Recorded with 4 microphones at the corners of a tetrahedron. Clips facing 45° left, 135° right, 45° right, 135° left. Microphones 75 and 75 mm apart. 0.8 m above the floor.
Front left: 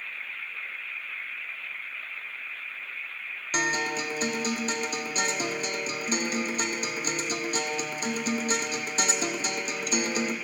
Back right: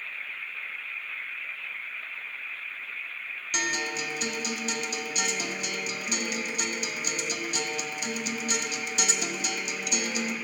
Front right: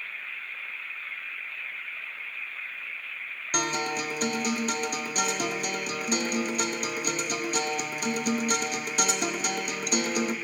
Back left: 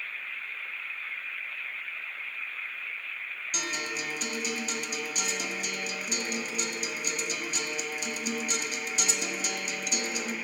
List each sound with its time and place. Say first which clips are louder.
3.5 s a guitar: front left 3 dB, front right 7 dB; 5° right, 0.6 m